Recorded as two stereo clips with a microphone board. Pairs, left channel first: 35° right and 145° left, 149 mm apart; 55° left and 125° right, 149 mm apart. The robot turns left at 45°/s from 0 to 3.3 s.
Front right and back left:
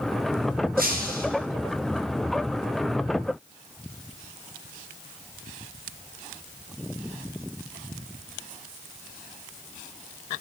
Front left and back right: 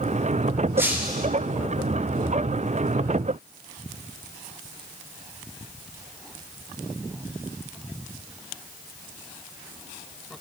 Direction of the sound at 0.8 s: 160° left.